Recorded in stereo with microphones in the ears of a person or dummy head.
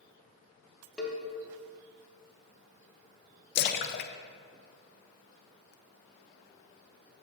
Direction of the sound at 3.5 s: 50° left (ahead or behind).